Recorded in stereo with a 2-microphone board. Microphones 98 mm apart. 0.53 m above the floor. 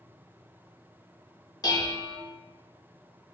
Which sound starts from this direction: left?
Dishes clattering, at 1.6 s.